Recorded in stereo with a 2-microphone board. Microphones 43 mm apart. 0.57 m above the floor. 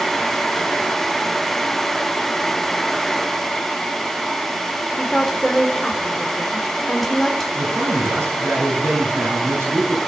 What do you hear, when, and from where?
5.0 s a woman speaking: 5° left (ahead or behind), 2 m
7.5 s a man speaking: 75° right (ahead or behind), 6 m